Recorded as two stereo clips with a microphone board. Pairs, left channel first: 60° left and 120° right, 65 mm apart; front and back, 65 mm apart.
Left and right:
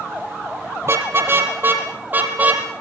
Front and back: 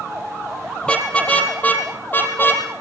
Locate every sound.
0.8 s a car horn: 75° right, 5 m; by 2.6 s 55° right, 5.5 m